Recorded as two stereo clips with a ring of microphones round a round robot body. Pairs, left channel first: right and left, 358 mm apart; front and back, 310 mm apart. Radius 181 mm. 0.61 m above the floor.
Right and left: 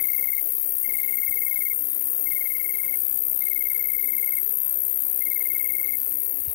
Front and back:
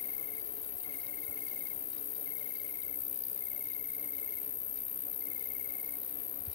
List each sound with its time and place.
0.0 s an insect: 75° right